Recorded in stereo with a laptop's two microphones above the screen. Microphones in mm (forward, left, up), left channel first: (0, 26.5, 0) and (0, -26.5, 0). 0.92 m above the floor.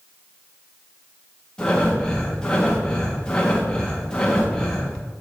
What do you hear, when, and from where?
1.6 s breathing: 15° left (ahead or behind), 0.7 m